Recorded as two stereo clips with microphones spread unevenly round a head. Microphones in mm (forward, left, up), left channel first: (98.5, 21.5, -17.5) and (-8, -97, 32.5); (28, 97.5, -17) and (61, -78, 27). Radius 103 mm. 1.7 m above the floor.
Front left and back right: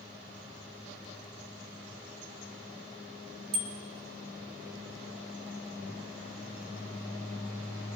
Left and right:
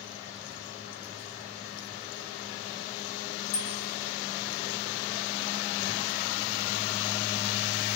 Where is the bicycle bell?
160° left, 3.5 m.